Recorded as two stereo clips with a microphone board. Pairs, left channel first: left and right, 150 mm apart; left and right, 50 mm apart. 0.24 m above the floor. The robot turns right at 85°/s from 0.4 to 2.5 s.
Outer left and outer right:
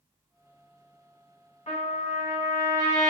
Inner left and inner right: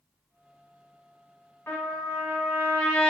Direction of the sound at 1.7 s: 85° left.